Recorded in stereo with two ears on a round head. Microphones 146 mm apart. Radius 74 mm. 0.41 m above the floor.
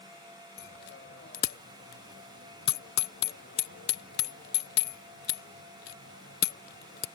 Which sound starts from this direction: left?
A bicycle bell, at 0.6 s.